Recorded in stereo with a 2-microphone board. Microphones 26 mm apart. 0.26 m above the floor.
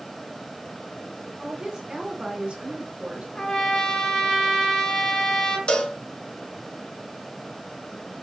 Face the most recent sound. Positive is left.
turn(degrees=40)  # may be behind; listen again after turning